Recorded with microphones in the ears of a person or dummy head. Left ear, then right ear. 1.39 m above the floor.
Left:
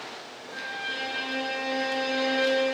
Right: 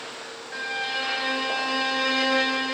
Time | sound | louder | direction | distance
0.5 | a violin | right 4 dB | 75° right (ahead or behind) | 0.9 m